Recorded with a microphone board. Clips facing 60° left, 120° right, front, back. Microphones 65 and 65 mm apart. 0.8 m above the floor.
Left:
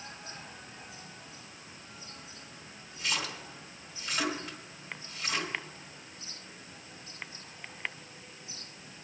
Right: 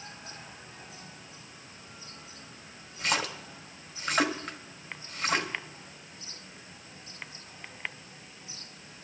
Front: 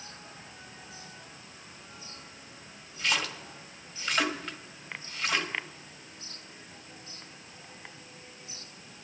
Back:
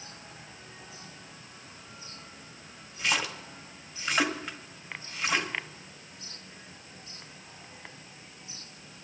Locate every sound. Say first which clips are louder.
3.0 s a splash: right 5 dB, back 1 dB; 105° right, 1.5 m